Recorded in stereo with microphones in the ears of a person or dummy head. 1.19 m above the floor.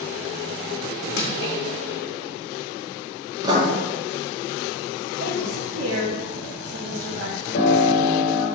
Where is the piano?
70° left (ahead or behind), 2.5 m.